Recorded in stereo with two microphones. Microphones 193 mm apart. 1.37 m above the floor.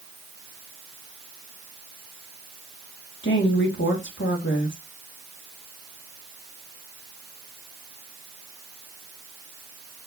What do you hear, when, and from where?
3.2 s a woman speaking: 75° left (ahead or behind), 1.7 m